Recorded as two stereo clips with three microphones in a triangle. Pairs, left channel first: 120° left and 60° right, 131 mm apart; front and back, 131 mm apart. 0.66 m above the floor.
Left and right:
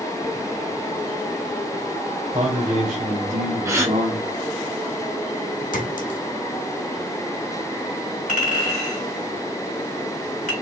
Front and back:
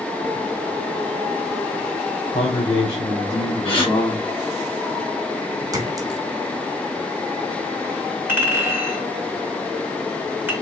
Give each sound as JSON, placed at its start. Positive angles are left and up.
{"t": 2.3, "sound": "a man speaking", "azimuth_deg": -25, "distance_m": 2.5}
{"t": 3.6, "sound": "a gasp", "azimuth_deg": -5, "distance_m": 1.4}
{"t": 5.7, "sound": "a clink", "azimuth_deg": 115, "distance_m": 0.9}
{"t": 8.3, "sound": "a clink", "azimuth_deg": 105, "distance_m": 2.0}